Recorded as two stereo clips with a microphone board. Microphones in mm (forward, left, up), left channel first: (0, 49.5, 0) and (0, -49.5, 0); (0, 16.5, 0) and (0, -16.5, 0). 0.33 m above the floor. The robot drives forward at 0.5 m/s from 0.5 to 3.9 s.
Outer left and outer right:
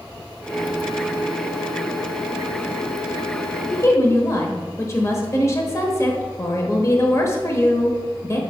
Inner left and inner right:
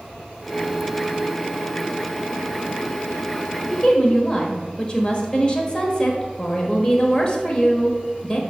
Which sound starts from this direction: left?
A woman speaking, at 3.7 s.